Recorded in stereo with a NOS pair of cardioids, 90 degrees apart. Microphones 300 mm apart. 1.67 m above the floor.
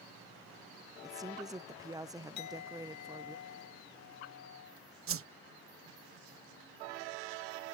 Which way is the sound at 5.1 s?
45° right.